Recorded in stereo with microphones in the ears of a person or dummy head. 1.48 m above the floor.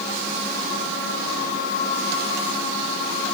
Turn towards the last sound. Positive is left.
No sound to turn to.